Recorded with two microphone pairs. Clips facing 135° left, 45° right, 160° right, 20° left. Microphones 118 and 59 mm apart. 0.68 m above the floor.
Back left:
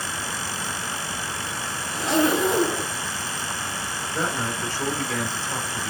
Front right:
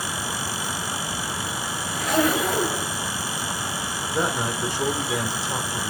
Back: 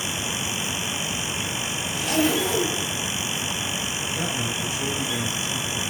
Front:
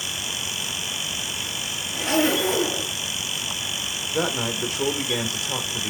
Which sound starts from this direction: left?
A zipper, at 1.9 s.